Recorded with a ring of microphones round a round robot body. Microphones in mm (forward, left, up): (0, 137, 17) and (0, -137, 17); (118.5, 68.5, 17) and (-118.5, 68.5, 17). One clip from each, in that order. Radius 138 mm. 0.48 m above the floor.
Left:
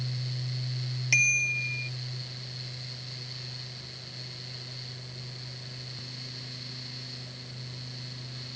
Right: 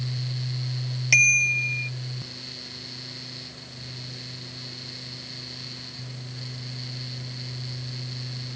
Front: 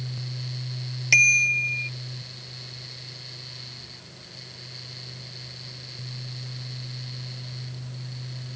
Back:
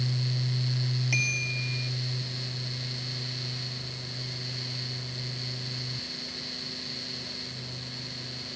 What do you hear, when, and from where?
1.1 s a bicycle bell: 5° right